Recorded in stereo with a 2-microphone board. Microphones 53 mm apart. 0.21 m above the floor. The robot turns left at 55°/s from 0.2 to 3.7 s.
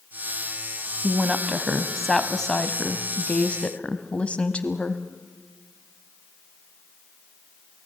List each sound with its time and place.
1.0 s a woman speaking: 15° right (ahead or behind), 1.2 m; by 5.0 s 20° left (ahead or behind), 1.2 m